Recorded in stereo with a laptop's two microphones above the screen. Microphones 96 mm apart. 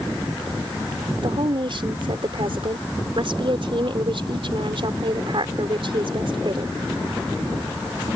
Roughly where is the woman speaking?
Right.